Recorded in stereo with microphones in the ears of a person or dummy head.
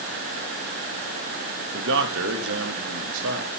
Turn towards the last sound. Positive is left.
turn(degrees=-75)  # may be behind; listen again after turning